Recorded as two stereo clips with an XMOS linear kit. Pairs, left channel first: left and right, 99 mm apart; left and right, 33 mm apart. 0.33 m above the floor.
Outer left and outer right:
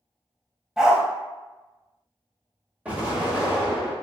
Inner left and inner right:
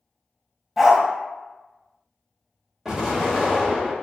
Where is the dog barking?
5° right (ahead or behind), 0.6 m.